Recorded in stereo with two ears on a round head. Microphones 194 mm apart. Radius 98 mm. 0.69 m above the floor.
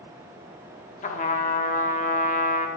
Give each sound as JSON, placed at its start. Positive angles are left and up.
{"t": 1.0, "sound": "a trumpet", "side_deg": 35, "distance_m": 0.8}